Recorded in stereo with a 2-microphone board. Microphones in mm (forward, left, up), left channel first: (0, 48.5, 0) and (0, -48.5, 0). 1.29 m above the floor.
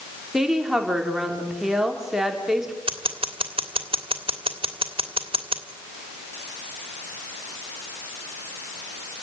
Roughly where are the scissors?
Right.